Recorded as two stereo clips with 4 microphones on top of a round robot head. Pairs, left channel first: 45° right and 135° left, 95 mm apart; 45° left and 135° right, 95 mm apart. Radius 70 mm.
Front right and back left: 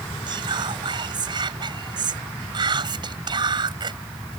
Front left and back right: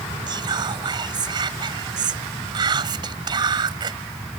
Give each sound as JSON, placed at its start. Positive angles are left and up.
{"t": 0.3, "sound": "whispering", "azimuth_deg": 180}